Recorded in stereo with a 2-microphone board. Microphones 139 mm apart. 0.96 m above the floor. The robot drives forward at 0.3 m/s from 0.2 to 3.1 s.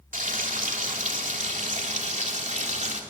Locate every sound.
0.1 s frying: 70° right (ahead or behind), 2.5 m; by 3.0 s 60° right (ahead or behind), 3 m